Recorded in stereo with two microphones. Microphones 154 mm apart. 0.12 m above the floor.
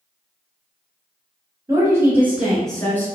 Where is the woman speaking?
25° right (ahead or behind), 1.4 m; by 3.1 s 15° left (ahead or behind), 1.3 m.